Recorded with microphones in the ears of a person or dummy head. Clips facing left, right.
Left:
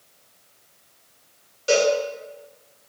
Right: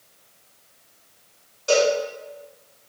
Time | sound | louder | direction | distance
1.7 | a cowbell | even | 35° left (ahead or behind) | 1.3 m